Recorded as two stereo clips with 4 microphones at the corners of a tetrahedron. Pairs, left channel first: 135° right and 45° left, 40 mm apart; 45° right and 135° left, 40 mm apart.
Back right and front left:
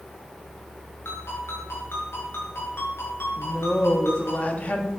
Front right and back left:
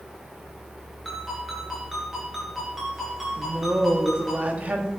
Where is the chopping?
No chopping in this recording.